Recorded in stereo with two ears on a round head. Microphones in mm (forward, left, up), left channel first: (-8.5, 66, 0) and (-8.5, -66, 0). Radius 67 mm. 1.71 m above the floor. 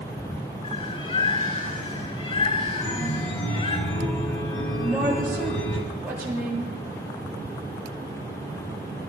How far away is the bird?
About 7.5 m.